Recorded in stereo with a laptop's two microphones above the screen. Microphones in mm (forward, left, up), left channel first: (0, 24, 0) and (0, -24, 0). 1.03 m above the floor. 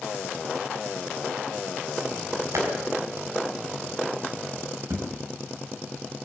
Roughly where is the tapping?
Right.